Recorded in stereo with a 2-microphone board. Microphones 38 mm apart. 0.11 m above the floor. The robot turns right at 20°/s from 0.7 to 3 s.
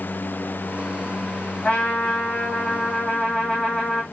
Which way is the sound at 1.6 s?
35° left (ahead or behind).